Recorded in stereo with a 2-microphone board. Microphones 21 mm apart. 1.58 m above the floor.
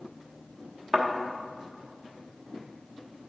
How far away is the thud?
About 1.1 m.